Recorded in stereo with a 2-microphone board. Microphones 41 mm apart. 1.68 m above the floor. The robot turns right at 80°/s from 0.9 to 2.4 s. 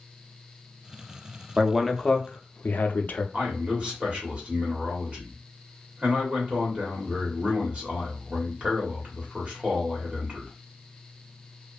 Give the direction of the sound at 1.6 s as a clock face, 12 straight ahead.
1 o'clock.